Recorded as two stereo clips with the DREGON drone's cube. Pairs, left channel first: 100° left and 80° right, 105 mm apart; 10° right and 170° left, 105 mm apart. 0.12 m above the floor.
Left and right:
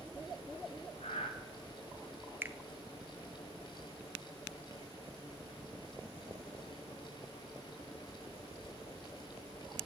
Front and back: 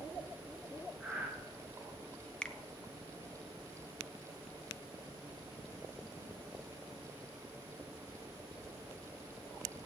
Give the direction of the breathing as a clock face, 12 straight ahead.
9 o'clock.